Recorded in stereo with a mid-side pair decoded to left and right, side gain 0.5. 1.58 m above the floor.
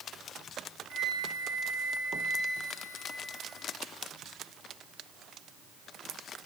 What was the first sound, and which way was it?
A flute, 70° right.